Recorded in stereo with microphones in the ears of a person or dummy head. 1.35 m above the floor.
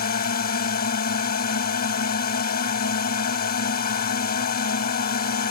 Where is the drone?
45° left (ahead or behind).